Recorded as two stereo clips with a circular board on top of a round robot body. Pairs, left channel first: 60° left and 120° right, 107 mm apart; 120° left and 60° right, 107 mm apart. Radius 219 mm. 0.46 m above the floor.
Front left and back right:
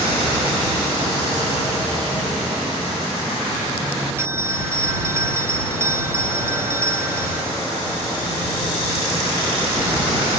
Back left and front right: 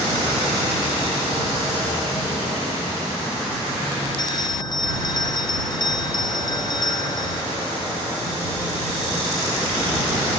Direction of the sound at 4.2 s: 170° left.